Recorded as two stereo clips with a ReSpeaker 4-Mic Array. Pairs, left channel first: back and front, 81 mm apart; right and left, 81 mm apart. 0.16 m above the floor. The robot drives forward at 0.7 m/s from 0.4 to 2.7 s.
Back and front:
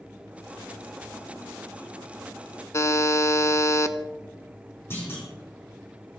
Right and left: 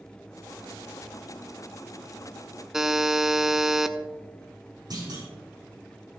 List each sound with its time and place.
2.7 s a buzzer: 170° left, 0.7 m
4.9 s a clunk: 120° left, 6.5 m